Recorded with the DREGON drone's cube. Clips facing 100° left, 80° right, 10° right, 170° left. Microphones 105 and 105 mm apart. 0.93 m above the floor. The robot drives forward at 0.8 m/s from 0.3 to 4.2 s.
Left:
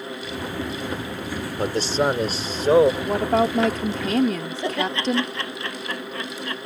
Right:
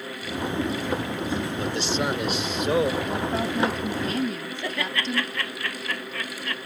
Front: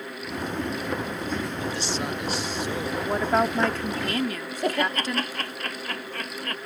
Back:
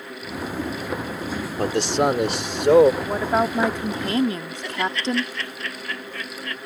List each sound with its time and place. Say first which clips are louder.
1.6 s a man speaking: left 8 dB, back 9 dB; 145° left; by 2.9 s 155° left
3.0 s a woman speaking: left 6 dB, back 1 dB; 80° left; by 5.3 s 105° left
4.6 s laughter: left 6 dB, front 1 dB; 35° left